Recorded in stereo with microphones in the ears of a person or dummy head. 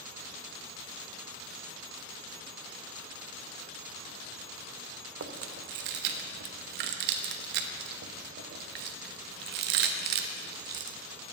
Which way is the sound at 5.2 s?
55° right (ahead or behind).